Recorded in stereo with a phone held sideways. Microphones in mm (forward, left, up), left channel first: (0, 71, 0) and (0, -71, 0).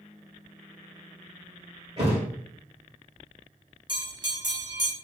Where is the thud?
40° right (ahead or behind), 1.3 m.